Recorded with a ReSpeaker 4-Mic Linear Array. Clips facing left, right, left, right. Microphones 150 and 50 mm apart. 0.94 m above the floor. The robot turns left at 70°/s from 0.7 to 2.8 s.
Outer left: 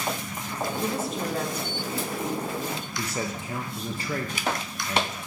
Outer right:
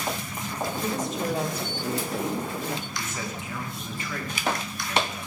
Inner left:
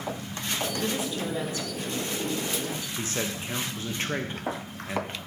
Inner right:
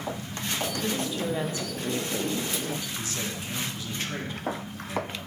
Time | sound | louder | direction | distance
0.8 | a woman speaking | even, even | 25° left | 1.2 m
3.0 | a man speaking | outer left 3 dB, inner left 2 dB | 35° left (ahead or behind) | 0.8 m